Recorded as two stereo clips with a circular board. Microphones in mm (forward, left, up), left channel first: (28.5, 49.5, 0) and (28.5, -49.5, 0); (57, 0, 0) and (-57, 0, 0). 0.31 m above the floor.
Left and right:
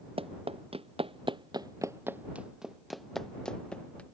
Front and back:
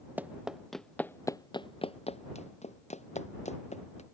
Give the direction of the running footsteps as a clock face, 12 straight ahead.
3 o'clock.